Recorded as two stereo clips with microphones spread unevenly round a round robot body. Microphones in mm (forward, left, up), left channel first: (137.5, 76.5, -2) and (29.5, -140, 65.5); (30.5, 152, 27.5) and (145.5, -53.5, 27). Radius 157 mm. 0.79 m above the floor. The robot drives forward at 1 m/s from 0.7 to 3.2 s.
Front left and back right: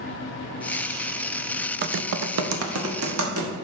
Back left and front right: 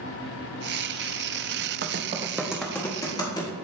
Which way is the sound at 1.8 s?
65° right.